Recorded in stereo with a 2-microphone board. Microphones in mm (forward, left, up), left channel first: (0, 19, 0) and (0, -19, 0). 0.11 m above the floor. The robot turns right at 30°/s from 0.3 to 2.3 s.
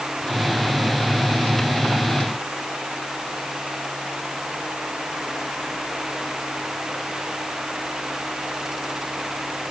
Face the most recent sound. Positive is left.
No sound to turn to.